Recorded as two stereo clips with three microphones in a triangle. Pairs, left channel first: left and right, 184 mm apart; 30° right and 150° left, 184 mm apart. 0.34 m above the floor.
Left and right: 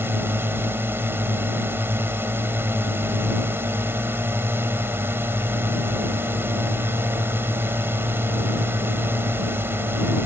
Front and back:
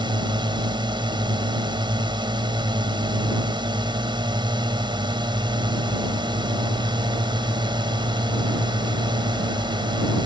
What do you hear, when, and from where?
0.0 s a drone: 160° right